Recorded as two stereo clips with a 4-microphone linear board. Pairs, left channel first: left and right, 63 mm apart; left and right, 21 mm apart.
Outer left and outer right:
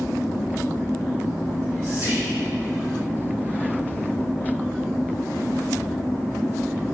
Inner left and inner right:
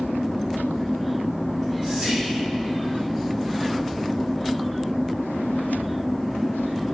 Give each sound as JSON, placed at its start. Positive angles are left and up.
{"t": 1.5, "sound": "whispering", "side_deg": -45, "distance_m": 2.0}